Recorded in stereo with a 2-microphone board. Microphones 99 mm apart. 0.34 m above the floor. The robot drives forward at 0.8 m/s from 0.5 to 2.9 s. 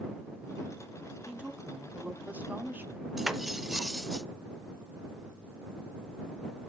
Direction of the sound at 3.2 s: Centre (ahead or behind).